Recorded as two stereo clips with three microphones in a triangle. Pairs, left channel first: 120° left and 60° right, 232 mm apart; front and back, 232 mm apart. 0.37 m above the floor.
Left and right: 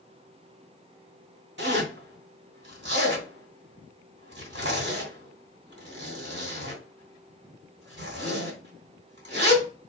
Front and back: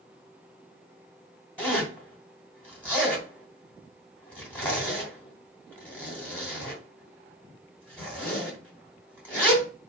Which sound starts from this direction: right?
A zipper, at 1.6 s.